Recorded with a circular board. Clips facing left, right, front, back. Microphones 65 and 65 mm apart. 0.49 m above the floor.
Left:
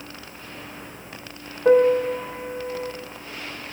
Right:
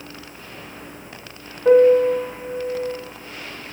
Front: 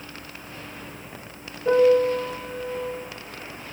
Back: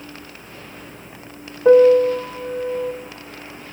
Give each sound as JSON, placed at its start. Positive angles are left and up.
{"t": 1.6, "sound": "a piano", "azimuth_deg": 170, "distance_m": 4.5}